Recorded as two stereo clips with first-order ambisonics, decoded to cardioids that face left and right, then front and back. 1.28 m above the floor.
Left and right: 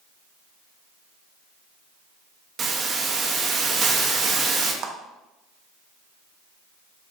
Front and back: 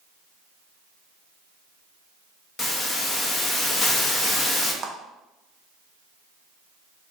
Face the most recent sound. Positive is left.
turn(degrees=-120)